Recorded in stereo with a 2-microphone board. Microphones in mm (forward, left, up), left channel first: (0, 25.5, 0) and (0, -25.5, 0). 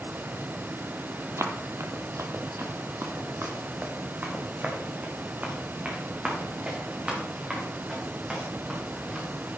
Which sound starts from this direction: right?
Running footsteps, at 1.4 s.